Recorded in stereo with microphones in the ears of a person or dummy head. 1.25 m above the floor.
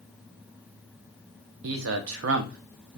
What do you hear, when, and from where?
1.6 s a man speaking: 70° right (ahead or behind), 0.6 m